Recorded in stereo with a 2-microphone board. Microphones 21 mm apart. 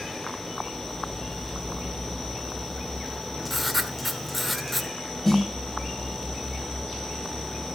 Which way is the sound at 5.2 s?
15° left (ahead or behind).